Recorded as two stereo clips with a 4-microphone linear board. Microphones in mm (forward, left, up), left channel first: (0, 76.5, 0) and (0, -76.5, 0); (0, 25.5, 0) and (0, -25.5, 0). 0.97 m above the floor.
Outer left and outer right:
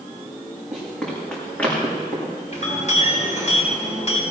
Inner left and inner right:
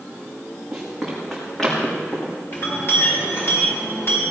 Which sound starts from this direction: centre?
Running footsteps, at 0.7 s.